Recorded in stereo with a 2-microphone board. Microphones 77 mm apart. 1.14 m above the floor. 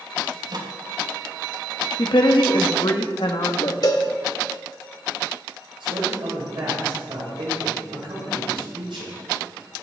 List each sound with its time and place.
0.3 s a microwave: 55° right (ahead or behind), 1.2 m
2.0 s a woman speaking: 70° left (ahead or behind), 1.3 m
3.8 s a cowbell: 50° left (ahead or behind), 1.3 m
5.8 s a man speaking: 85° right, 5.5 m